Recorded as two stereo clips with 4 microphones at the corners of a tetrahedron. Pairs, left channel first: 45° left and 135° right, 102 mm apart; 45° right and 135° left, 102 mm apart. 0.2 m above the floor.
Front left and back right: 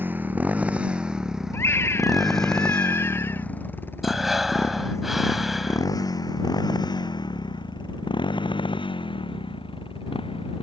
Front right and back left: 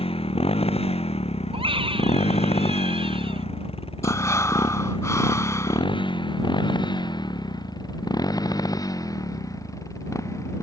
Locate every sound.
0.0 s a motorcycle: 65° right; by 10.6 s 15° left
1.5 s a scream: 110° left
4.0 s breathing: 50° right